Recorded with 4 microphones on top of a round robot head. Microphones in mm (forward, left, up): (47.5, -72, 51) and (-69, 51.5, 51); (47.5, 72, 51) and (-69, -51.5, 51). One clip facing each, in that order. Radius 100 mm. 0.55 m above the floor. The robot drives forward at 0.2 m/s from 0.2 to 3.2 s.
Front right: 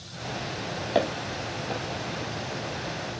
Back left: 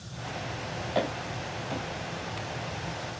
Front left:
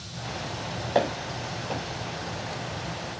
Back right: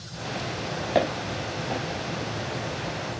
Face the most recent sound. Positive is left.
turn(degrees=-75)